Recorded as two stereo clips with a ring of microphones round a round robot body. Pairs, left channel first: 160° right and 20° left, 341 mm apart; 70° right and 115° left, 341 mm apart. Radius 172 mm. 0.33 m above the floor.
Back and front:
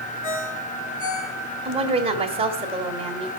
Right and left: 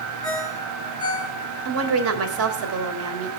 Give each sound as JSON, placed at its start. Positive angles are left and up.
{"t": 0.2, "sound": "a ringtone", "azimuth_deg": -145, "distance_m": 2.5}
{"t": 1.6, "sound": "a woman speaking", "azimuth_deg": 90, "distance_m": 1.7}